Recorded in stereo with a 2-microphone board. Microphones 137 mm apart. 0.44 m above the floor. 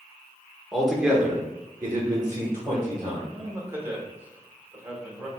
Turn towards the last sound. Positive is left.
turn(degrees=-15)  # may be behind; listen again after turning